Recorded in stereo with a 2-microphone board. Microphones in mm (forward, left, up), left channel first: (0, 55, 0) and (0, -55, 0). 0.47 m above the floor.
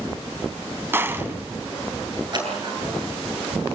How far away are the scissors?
About 8 m.